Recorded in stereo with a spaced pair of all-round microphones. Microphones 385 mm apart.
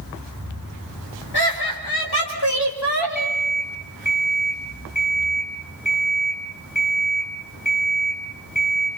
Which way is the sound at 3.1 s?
50° left (ahead or behind).